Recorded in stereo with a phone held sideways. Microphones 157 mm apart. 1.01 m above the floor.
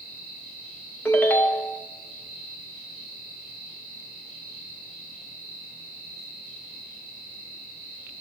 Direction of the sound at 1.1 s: 10° left (ahead or behind).